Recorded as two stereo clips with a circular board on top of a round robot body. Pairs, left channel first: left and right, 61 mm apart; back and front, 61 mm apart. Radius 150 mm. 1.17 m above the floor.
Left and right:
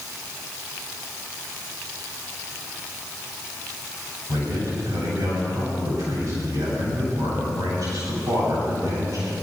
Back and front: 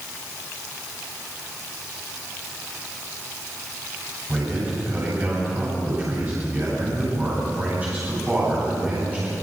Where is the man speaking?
60° right, 9.5 m.